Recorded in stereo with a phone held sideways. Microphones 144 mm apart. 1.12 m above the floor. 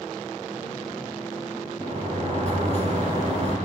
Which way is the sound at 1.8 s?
50° right (ahead or behind).